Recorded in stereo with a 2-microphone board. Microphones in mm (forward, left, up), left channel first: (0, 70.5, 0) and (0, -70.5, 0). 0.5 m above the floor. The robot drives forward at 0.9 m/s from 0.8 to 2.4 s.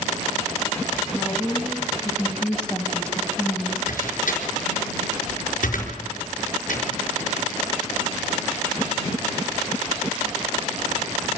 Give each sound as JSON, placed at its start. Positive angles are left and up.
{"t": 1.1, "sound": "a woman speaking", "side_deg": 5, "distance_m": 4.5}
{"t": 3.9, "sound": "a door slam", "side_deg": 80, "distance_m": 4.5}